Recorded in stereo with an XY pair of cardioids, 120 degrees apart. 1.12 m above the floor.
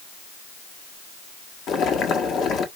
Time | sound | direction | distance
1.7 | boiling | 60° left | 1.1 m